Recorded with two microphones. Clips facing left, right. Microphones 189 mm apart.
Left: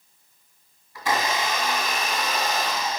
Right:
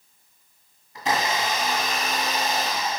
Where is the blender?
20° right (ahead or behind), 1.8 m.